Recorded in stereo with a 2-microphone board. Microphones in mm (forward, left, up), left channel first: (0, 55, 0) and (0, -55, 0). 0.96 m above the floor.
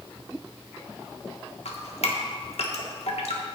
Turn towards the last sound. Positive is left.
turn(degrees=85)